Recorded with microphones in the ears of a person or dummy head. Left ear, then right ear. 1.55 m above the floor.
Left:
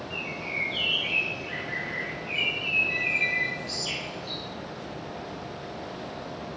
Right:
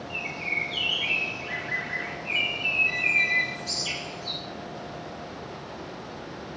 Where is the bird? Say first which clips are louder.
Right 4 dB; 45° right (ahead or behind), 1.6 m.